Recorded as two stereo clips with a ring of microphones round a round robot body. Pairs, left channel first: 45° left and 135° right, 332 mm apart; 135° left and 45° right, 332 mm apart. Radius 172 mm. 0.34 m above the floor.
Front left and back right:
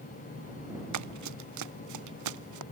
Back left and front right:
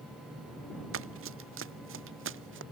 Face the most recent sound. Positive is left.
turn(degrees=-100)